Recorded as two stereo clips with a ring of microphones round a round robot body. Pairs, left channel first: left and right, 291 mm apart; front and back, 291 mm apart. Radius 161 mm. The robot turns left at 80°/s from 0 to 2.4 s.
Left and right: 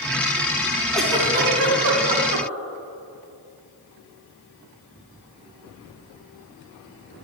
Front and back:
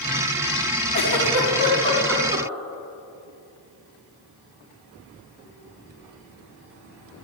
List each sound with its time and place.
0.9 s a giggle: 5° left, 3 m; by 2.5 s 110° right, 3 m